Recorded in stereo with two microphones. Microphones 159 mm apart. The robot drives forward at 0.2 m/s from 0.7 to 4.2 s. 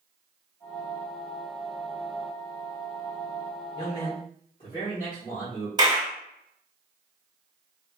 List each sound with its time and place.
3.8 s a man speaking: 60° left (ahead or behind), 1.8 m; by 5.7 s 55° left (ahead or behind), 1.8 m
5.8 s a clap: 25° right (ahead or behind), 1.1 m